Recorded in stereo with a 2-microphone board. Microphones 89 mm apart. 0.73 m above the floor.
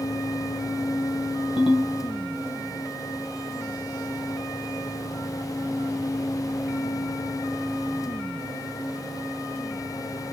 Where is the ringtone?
70° left (ahead or behind), 1.8 m.